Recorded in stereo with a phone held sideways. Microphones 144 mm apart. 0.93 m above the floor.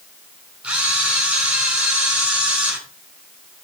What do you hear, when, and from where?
0.6 s a camera shutter: 10° right (ahead or behind), 4.5 m